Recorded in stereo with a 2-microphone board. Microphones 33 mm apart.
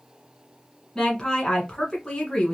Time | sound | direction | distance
0.9 | a woman speaking | 25° left (ahead or behind) | 1.3 m